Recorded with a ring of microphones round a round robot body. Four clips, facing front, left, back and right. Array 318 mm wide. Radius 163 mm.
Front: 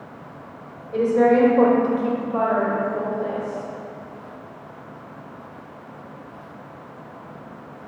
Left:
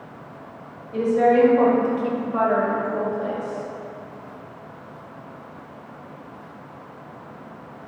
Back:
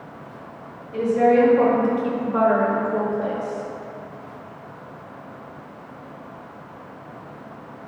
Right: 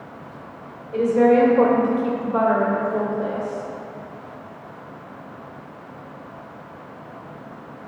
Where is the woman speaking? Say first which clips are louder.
Right 2 dB, even; 35° right, 1.8 m; by 3.7 s 170° right, 2 m.